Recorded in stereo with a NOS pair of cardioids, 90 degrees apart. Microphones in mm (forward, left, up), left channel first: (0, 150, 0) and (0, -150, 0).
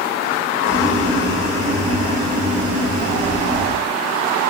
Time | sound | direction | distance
0.6 | boiling | 25° right | 3 m